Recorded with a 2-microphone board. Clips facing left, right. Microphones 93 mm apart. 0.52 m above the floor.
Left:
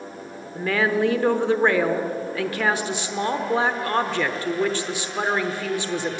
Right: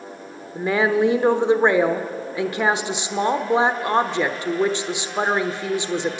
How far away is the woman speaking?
About 1.2 m.